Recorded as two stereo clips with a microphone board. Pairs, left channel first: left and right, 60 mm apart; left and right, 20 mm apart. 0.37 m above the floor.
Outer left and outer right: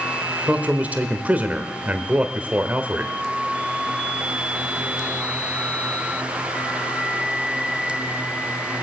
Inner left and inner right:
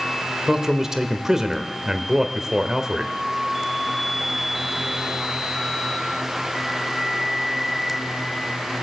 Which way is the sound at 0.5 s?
25° right (ahead or behind).